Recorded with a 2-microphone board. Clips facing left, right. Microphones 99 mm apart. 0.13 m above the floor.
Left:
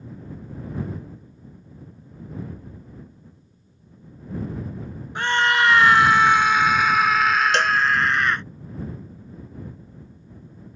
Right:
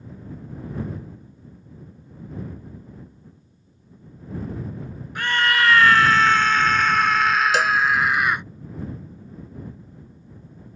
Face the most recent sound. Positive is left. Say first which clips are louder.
# even
turn(degrees=-5)  # may be behind; listen again after turning